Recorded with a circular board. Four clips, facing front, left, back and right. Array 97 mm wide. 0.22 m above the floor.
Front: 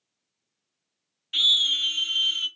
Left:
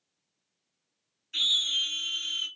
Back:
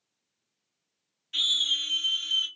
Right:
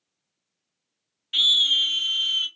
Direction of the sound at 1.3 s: 65° right.